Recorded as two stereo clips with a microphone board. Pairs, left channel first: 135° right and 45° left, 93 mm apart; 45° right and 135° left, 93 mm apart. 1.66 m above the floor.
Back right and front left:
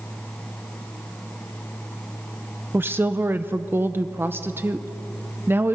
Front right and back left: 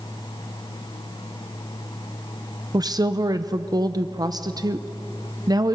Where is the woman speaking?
105° left, 0.8 m.